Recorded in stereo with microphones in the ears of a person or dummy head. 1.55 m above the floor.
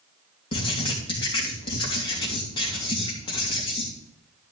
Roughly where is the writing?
Left.